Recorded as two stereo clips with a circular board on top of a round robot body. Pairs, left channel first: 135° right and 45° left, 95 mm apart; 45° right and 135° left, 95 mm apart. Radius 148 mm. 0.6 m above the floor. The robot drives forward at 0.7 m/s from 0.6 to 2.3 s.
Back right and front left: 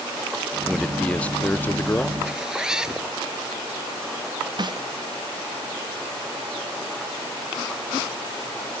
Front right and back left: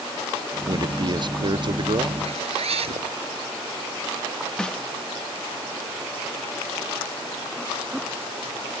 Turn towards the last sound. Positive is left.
turn(degrees=35)